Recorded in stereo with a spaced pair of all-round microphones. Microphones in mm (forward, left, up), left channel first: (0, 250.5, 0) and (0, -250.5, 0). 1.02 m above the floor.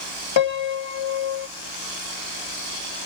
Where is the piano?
60° left (ahead or behind), 0.6 m.